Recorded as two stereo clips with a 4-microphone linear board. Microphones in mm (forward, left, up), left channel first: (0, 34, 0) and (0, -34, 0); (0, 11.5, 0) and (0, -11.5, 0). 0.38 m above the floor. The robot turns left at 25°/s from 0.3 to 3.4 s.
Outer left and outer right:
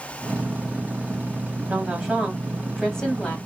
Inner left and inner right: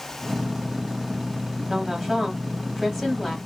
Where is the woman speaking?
160° right, 2 m; by 3.4 s 160° left, 2 m.